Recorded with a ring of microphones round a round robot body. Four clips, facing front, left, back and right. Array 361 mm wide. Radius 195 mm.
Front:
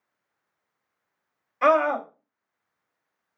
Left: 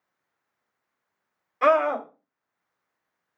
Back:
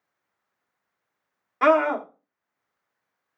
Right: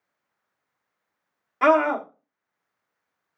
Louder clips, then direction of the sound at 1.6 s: Right 2 dB, back 1 dB; 155° right.